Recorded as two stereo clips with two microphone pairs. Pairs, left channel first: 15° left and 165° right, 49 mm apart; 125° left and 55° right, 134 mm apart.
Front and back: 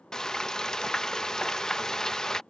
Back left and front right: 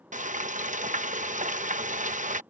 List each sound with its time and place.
0.1 s frying: 65° right